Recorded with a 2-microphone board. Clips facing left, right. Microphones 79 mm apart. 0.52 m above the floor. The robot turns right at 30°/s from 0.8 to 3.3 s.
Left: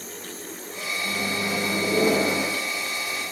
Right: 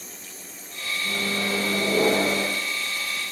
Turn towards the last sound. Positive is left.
turn(degrees=-100)